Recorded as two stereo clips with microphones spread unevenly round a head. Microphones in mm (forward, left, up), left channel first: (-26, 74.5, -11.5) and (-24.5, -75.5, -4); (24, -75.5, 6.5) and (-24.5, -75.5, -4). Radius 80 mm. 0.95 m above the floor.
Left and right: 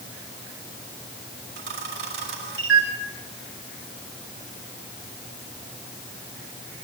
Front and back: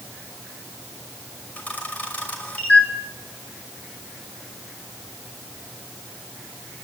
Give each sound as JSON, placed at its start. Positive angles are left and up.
{"t": 1.6, "sound": "a camera shutter", "azimuth_deg": -55, "distance_m": 5.5}